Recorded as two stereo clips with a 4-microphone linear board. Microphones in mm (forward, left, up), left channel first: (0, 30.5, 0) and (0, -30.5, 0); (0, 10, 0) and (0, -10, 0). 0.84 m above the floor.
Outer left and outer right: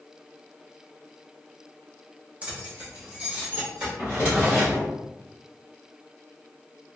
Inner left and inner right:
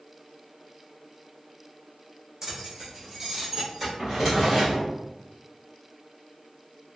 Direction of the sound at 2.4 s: 20° right (ahead or behind).